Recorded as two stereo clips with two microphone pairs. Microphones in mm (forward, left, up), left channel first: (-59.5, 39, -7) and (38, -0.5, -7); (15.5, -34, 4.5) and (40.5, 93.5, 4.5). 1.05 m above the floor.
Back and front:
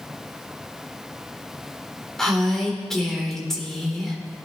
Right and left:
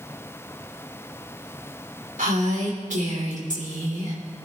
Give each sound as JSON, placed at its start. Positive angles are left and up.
{"t": 2.2, "sound": "a woman speaking", "azimuth_deg": 70, "distance_m": 3.5}